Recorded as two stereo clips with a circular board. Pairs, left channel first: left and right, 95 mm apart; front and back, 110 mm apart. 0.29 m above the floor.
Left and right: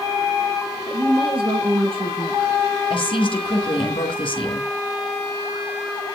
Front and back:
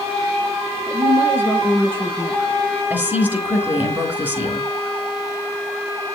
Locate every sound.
0.9 s a woman speaking: 115° right, 7.5 m; by 2.6 s 105° right, 6.5 m
2.9 s a woman speaking: 105° left, 4 m